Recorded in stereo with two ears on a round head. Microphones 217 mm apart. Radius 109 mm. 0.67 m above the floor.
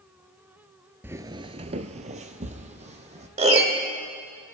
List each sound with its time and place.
1.0 s footsteps: 10° right (ahead or behind), 0.7 m; by 3.3 s 30° right (ahead or behind), 1.8 m
3.4 s a piano: 25° right (ahead or behind), 1.2 m